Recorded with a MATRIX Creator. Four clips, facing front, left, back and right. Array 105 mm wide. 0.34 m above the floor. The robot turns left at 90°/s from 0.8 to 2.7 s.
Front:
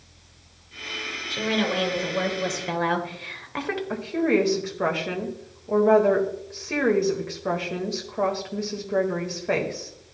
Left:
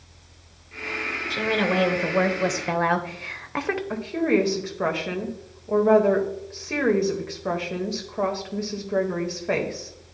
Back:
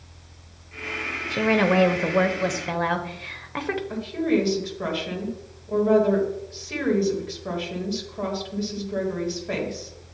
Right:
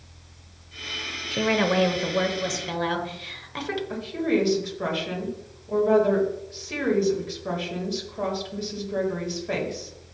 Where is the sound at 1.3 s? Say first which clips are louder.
Right 1 dB, back 5 dB; 140° right, 1.0 m; by 3.8 s 95° left, 1.0 m.